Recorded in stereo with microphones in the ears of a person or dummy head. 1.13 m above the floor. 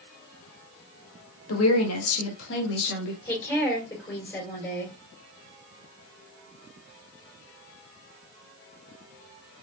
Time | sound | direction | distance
1.5 | a woman speaking | 75° left (ahead or behind) | 1.8 m
3.2 | a woman speaking | 10° left (ahead or behind) | 3.5 m